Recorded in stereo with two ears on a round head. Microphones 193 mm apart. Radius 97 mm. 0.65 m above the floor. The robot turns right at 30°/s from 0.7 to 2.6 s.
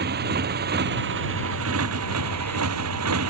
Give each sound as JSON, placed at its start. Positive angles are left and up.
{"t": 0.0, "sound": "a motorcycle", "side_deg": -50}